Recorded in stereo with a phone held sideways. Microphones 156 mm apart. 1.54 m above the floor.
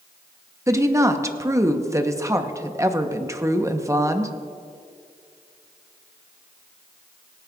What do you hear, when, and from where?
0.7 s a woman speaking: 20° right (ahead or behind), 0.8 m